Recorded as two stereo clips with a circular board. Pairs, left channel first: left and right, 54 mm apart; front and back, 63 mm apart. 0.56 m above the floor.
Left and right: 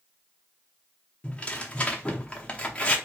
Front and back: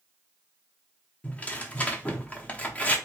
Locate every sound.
1.2 s tearing paper: 40° left, 0.6 m